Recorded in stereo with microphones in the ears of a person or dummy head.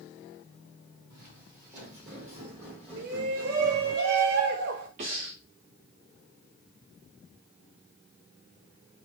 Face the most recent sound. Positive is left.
turn(degrees=-45)  # may be behind; listen again after turning